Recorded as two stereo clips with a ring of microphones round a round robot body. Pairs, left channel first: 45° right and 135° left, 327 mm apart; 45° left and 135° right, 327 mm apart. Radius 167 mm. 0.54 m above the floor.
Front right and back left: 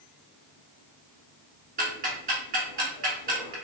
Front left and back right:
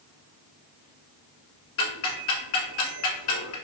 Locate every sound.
1.8 s ticking: 70° left, 1.0 m